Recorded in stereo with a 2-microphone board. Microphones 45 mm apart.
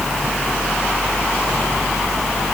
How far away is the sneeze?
I don't hear a sneeze.